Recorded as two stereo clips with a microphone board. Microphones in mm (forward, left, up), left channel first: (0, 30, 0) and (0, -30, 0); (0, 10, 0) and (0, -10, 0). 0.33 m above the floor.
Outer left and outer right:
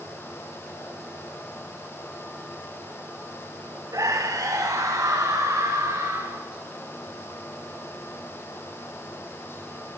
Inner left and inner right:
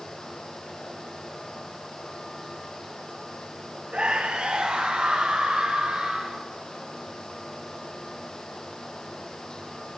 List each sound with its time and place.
3.9 s a scream: 65° right (ahead or behind), 2 m; by 6.4 s 70° right (ahead or behind), 5 m